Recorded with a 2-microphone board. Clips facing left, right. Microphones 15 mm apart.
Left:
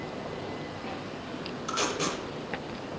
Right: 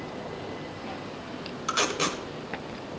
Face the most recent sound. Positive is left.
turn(degrees=-40)  # may be behind; listen again after turning